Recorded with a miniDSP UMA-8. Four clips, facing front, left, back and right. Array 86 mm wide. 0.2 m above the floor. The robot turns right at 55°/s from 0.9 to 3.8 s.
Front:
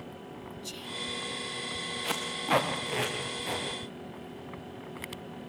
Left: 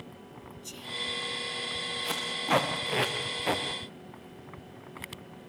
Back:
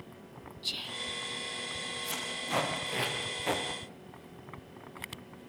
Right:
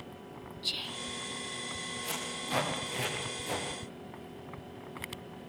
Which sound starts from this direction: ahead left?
Tape being pulled, at 2.0 s.